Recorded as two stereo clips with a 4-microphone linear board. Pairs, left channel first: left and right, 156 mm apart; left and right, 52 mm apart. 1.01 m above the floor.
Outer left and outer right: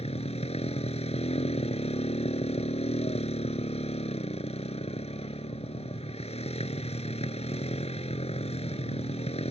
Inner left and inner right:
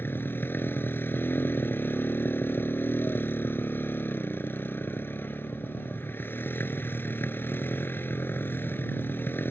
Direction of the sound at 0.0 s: 40° left (ahead or behind).